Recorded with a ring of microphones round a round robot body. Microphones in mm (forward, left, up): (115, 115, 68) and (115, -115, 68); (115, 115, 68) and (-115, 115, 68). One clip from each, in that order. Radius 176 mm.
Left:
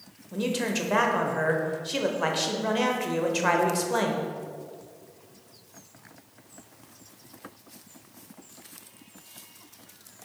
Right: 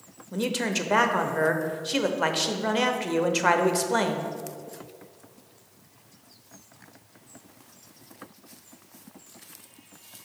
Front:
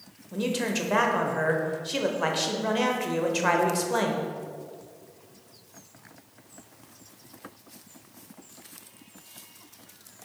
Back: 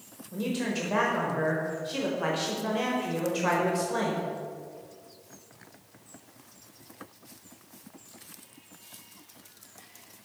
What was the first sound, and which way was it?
A man speaking, 45° right.